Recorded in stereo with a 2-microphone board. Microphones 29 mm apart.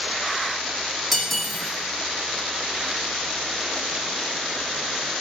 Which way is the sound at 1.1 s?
5° left (ahead or behind).